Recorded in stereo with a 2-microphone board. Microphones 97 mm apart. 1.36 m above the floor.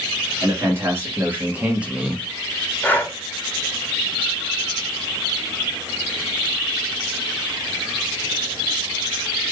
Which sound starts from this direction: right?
A man speaking, at 0.4 s.